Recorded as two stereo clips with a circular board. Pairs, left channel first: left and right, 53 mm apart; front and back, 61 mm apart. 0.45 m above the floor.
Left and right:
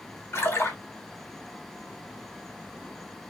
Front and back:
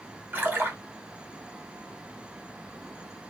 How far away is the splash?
About 0.9 m.